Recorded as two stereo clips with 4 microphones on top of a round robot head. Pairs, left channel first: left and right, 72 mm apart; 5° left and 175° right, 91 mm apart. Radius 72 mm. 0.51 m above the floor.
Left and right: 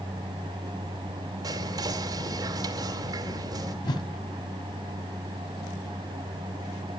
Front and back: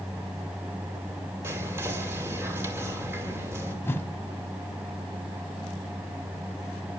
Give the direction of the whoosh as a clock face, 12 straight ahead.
10 o'clock.